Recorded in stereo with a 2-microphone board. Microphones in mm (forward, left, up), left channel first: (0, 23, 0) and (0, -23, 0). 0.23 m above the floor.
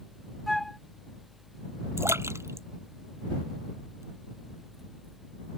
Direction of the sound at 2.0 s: 80° right.